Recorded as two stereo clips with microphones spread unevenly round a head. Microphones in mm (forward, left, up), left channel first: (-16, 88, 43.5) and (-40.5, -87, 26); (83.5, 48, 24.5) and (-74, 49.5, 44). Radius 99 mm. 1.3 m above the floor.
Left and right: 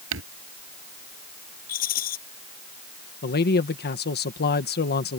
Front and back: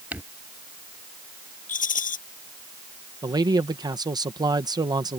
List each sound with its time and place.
0.1 s crumpling: 100° right
1.7 s a rattle: 35° left
3.2 s a man speaking: 110° left